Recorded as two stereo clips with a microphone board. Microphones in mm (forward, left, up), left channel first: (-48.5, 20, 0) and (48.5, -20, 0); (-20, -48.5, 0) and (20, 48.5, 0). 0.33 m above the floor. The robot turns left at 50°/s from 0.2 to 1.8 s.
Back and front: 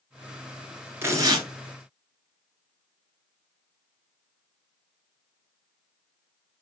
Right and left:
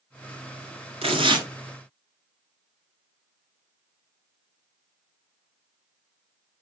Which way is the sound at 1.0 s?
45° left.